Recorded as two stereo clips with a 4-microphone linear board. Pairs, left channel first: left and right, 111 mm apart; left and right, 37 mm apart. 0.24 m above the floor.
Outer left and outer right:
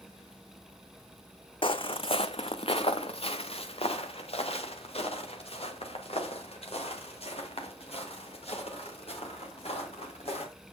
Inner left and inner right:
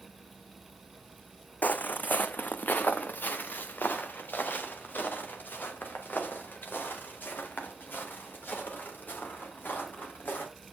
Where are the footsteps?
55° left (ahead or behind), 0.7 m; by 10.4 s 65° left (ahead or behind), 5 m.